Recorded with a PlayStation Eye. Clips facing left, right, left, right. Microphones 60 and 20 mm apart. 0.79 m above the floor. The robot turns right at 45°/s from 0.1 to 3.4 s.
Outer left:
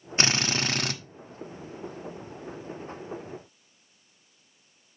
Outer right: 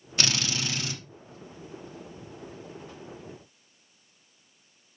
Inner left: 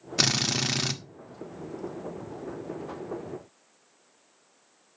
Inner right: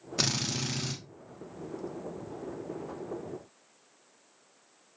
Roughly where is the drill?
Ahead left.